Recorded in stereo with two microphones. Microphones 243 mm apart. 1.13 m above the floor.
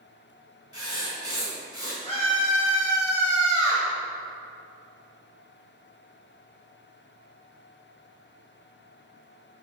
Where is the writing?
70° left (ahead or behind), 3 m.